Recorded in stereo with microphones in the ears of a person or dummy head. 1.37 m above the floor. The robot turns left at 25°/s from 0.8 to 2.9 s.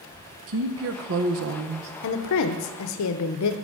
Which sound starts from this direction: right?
A woman speaking, at 0.5 s.